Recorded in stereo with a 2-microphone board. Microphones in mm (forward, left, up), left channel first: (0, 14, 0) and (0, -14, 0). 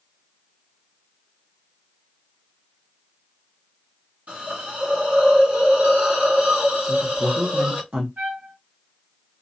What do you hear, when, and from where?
4.3 s a hiss: 75° right (ahead or behind), 1.4 m
6.8 s a woman speaking: 75° right (ahead or behind), 0.8 m
8.2 s a trumpet: 80° right, 1.6 m